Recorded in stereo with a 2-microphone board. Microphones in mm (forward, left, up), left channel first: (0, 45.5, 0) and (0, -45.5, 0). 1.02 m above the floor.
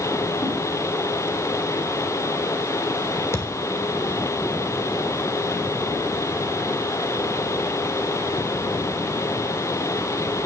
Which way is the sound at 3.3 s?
30° left (ahead or behind).